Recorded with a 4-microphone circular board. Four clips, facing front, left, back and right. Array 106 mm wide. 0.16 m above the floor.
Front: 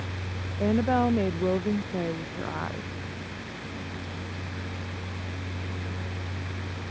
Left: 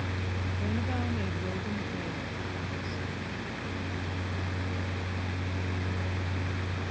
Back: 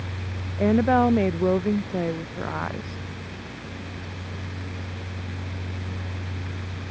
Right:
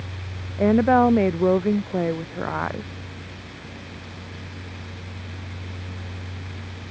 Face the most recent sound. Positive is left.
turn(degrees=-100)